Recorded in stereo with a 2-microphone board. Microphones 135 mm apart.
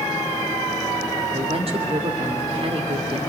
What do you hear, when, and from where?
1.3 s a woman speaking: 45° right (ahead or behind), 3 m